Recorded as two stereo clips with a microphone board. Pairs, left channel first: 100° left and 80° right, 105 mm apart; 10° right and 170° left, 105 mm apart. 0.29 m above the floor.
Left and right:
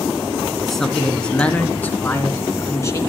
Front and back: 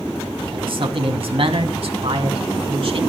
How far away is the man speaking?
About 3 m.